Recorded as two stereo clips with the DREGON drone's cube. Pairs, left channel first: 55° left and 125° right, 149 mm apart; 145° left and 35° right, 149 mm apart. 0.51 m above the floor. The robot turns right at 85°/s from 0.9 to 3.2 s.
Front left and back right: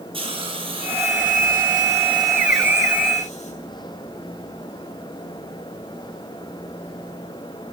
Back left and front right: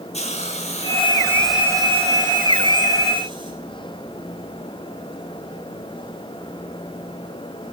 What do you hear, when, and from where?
0.1 s a hiss: 175° right, 2.5 m; by 3.5 s 20° left, 2.5 m